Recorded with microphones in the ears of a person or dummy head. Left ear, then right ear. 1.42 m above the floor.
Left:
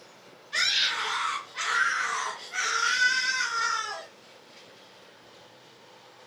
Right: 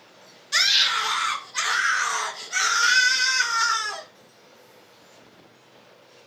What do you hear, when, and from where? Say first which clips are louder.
0.5 s a scream: right 6 dB; 85° right, 3.5 m; by 4.1 s 65° right (ahead or behind), 2.0 m